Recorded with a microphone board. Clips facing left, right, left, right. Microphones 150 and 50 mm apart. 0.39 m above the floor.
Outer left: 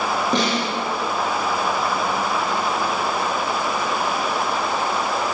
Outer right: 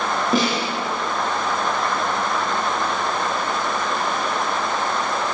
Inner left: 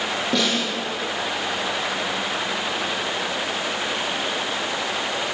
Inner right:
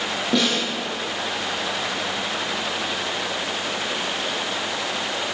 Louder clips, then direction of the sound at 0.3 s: Outer right 2 dB, inner right 2 dB; 5° right (ahead or behind).